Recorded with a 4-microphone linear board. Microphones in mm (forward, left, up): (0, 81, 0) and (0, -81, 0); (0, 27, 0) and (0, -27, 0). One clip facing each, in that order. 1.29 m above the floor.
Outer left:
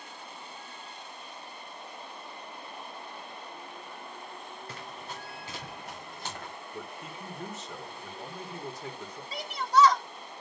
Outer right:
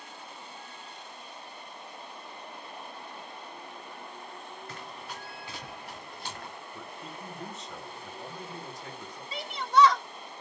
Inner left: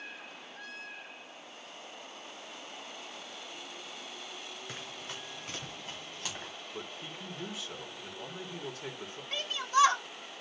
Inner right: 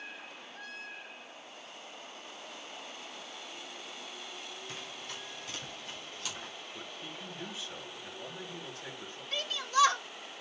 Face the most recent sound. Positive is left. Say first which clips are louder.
# even, inner left 2 dB
turn(degrees=40)  # may be behind; listen again after turning